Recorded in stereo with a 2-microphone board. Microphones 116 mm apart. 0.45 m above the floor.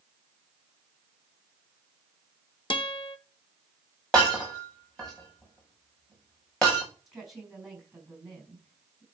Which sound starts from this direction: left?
A guitar, at 2.7 s.